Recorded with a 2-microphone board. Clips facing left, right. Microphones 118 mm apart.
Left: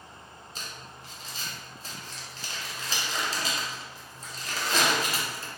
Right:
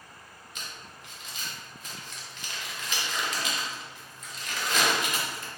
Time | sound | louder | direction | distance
0.6 | crumpling | left 1 dB | 30° left (ahead or behind) | 0.5 m